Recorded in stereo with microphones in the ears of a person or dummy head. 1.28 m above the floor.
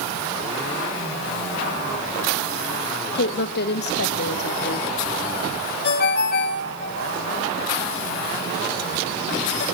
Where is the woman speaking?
60° left (ahead or behind), 0.8 m.